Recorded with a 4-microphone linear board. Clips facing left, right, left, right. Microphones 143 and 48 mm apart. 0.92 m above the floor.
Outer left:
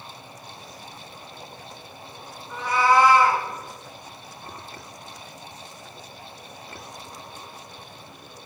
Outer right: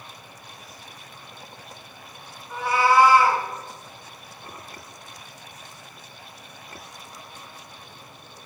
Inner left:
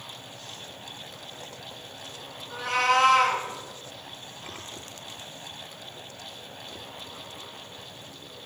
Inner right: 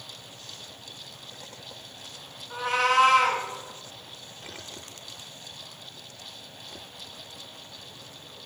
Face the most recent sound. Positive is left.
turn(degrees=-10)  # may be behind; listen again after turning